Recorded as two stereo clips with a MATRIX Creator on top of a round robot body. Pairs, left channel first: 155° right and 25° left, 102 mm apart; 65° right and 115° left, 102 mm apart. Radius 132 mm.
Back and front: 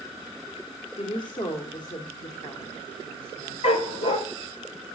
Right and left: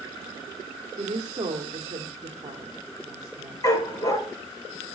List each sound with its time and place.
1.0 s a woman speaking: 160° left, 2.5 m
3.6 s a dog barking: 130° right, 2 m